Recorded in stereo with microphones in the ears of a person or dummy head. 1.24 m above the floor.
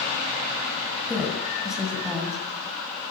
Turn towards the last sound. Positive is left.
turn(degrees=-5)  # may be behind; listen again after turning